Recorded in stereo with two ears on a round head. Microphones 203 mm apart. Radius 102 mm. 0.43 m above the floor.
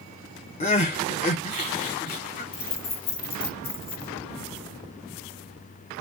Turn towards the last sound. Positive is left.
turn(degrees=25)  # may be behind; listen again after turning